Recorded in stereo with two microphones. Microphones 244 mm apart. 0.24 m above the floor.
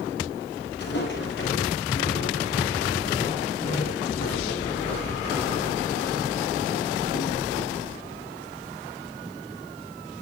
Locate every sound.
0.8 s footsteps: 45° left (ahead or behind), 7.5 m; by 7.8 s 85° left, 7 m